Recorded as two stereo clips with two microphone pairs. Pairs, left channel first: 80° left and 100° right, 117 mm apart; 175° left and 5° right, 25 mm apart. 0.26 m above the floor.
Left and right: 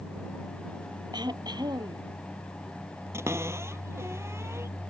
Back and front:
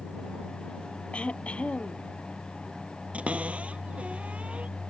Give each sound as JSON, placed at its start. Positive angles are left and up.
{"t": 1.1, "sound": "throat clearing", "azimuth_deg": -155}
{"t": 3.1, "sound": "a cupboard door", "azimuth_deg": -35}